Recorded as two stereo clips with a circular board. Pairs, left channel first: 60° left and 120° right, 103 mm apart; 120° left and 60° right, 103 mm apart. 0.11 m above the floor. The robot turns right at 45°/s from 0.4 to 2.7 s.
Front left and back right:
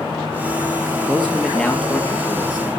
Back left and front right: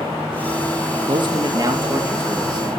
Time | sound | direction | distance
1.1 | a man speaking | 45° right | 3 m